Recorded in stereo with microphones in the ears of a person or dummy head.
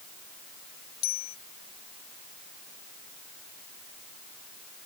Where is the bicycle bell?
80° left.